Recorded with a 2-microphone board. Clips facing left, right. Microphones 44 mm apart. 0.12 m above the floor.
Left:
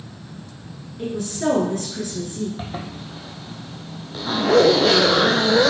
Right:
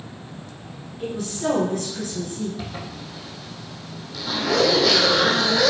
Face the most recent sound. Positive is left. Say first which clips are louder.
# left 2 dB
turn(degrees=35)  # may be behind; listen again after turning